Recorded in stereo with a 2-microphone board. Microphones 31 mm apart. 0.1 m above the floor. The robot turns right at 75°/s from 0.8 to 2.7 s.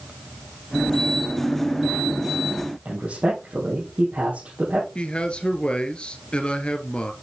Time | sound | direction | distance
2.9 | a man speaking | 50° right (ahead or behind) | 4.5 m
5.0 | a man speaking | 40° left (ahead or behind) | 1.4 m